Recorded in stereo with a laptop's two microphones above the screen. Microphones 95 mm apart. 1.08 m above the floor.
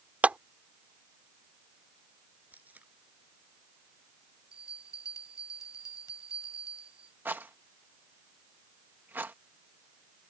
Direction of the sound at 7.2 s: 20° right (ahead or behind).